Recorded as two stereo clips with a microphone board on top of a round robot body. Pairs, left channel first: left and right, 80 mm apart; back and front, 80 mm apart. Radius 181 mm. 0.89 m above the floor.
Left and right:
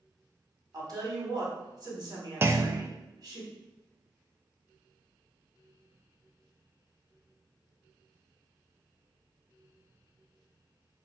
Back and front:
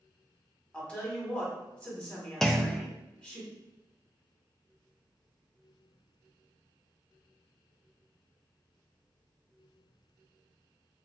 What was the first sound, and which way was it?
A woman speaking, 110° right.